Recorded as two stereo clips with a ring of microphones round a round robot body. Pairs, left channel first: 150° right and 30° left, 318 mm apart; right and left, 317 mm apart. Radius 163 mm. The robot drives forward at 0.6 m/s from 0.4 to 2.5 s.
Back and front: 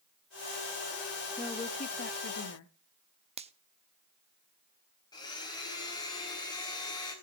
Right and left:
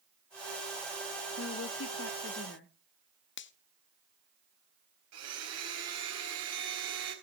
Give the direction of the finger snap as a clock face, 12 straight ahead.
1 o'clock.